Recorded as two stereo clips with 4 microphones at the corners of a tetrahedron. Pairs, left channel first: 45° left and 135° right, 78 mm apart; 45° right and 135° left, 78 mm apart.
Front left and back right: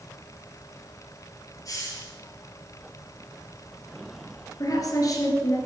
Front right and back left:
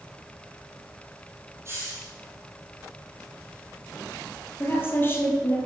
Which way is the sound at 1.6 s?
80° left.